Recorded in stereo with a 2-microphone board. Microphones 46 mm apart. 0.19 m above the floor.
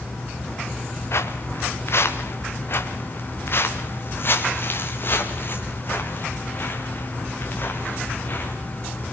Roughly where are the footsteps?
Left.